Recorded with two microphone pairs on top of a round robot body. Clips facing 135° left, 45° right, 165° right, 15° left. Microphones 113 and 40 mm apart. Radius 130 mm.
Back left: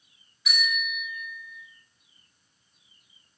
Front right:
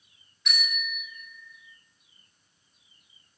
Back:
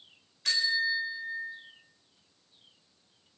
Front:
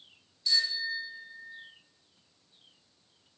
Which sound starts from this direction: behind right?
A bicycle bell, at 0.5 s.